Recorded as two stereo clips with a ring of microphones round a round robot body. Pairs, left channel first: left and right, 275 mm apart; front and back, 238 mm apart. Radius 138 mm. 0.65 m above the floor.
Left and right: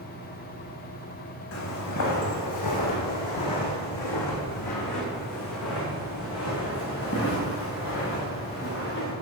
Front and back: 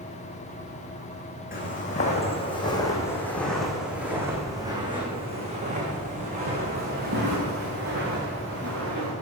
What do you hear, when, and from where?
1.5 s footsteps: 55° left, 2.5 m; by 9.1 s 140° left, 4.5 m